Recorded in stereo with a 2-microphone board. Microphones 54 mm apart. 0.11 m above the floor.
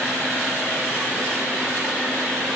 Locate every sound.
Only background noise.